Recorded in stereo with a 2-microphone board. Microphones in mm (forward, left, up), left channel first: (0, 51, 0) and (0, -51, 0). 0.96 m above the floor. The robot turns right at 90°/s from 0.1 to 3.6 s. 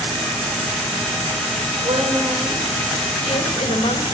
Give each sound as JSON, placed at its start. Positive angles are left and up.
{"t": 1.8, "sound": "a woman speaking", "azimuth_deg": -70, "distance_m": 3.5}